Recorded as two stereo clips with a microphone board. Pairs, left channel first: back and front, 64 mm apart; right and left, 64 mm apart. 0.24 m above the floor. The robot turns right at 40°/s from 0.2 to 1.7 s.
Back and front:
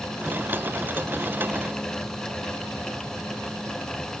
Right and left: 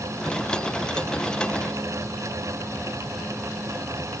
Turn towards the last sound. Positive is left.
No sound to turn to.